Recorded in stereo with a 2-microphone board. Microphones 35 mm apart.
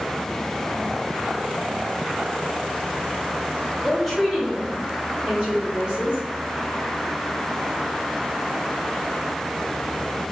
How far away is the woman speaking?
About 1.1 m.